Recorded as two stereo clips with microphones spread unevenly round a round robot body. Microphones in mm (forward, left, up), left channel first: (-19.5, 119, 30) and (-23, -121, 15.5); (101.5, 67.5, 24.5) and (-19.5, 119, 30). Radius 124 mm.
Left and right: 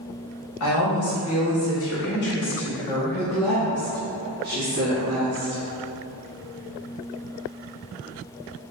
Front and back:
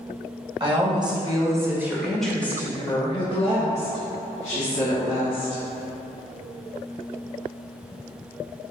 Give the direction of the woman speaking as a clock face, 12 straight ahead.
8 o'clock.